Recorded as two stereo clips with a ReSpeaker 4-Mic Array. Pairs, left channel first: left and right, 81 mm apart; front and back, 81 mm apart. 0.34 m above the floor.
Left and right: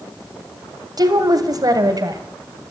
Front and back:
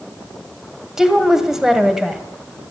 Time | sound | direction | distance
1.0 | a woman speaking | 95° right | 2.0 m